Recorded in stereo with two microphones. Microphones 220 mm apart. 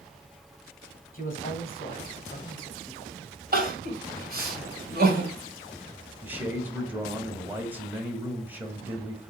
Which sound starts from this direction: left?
A man speaking, at 1.1 s.